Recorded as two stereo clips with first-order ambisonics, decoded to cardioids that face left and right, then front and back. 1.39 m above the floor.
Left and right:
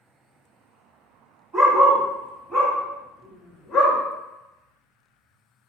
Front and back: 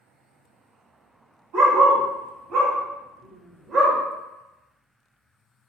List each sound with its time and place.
1.5 s a dog barking: 160° right, 1.8 m; by 4.0 s 130° left, 1.4 m